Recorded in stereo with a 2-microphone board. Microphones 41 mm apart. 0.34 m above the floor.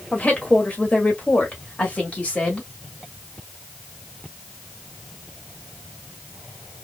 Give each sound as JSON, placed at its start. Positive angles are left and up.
{"t": 0.1, "sound": "a woman speaking", "side_deg": 35, "distance_m": 1.6}